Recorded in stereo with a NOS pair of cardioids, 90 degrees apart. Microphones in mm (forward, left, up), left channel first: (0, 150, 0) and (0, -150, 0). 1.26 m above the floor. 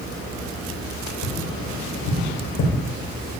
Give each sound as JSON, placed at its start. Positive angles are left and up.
{"t": 1.2, "sound": "tapping", "azimuth_deg": 70, "distance_m": 3.5}